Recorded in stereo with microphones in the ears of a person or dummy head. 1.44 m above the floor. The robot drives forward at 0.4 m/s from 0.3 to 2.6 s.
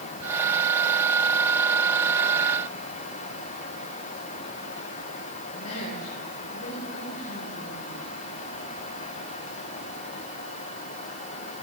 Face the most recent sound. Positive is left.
turn(degrees=85)